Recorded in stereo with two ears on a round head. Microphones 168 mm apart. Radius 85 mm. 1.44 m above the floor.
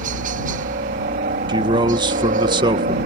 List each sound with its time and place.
0.0 s a helicopter: 45° right (ahead or behind)
1.5 s a man speaking: 25° right (ahead or behind)